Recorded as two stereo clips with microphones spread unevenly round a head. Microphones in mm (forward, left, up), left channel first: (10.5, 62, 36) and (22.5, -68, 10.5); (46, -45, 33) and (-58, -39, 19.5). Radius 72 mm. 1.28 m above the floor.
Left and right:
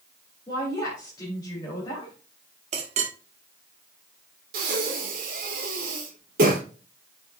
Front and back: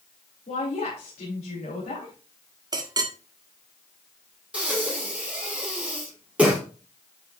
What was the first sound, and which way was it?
A woman speaking, 35° left.